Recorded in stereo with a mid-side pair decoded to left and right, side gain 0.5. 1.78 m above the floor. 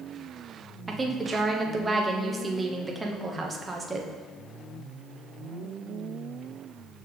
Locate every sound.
0.9 s a woman speaking: 20° right, 1.1 m